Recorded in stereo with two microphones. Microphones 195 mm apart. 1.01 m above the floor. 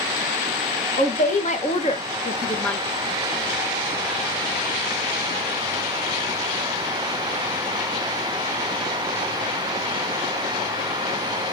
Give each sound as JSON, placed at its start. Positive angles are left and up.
{"t": 1.0, "sound": "a woman speaking", "side_deg": 40, "distance_m": 1.3}